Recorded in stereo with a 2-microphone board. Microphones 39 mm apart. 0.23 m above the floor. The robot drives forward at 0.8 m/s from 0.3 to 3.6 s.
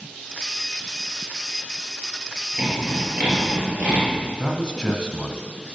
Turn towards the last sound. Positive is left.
turn(degrees=25)  # may be behind; listen again after turning